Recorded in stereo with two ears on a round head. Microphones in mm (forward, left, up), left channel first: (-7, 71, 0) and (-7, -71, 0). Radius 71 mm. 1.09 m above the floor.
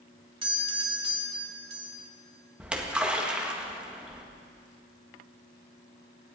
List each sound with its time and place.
0.4 s a doorbell: 35° right (ahead or behind), 2 m
2.6 s a splash: 10° right (ahead or behind), 1.7 m